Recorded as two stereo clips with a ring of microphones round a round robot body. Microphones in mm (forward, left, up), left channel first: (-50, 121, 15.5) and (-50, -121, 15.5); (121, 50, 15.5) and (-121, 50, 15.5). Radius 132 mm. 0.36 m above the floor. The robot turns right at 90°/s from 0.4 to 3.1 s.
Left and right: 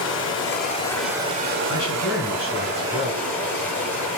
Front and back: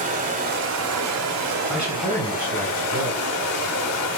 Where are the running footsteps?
No running footsteps in this recording.